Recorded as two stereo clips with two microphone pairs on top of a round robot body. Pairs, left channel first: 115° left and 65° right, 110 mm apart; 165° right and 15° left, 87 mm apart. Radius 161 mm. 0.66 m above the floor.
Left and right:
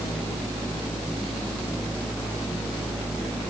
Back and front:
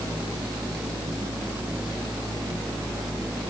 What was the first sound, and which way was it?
Only background noise.